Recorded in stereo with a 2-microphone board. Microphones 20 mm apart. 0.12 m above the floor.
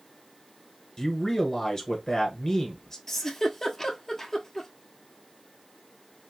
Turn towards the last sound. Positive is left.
turn(degrees=10)  # may be behind; listen again after turning